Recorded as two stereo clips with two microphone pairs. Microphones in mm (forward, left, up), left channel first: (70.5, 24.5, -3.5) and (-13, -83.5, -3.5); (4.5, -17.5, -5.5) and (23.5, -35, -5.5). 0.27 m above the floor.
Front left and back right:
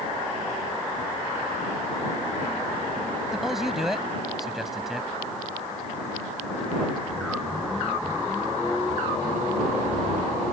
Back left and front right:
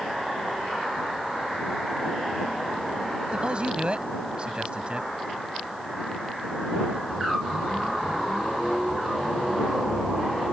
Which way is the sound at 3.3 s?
40° right.